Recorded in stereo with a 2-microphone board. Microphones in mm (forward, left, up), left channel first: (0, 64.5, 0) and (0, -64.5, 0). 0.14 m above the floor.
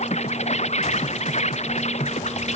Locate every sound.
0.0 s an insect: 60° left (ahead or behind)